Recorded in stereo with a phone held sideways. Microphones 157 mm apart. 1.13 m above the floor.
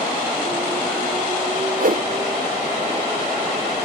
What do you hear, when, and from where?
1.8 s a whoosh: 60° right (ahead or behind), 0.5 m